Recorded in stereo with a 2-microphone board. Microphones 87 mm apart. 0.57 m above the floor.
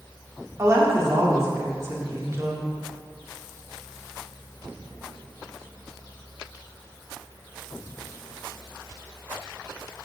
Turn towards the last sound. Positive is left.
turn(degrees=-35)  # may be behind; listen again after turning